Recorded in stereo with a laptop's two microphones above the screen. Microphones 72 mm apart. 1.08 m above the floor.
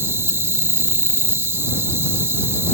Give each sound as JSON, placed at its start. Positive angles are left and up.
{"t": 0.0, "sound": "an insect", "side_deg": -40}